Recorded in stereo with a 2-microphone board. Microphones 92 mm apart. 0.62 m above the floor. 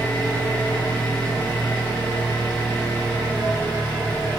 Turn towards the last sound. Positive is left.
turn(degrees=15)  # may be behind; listen again after turning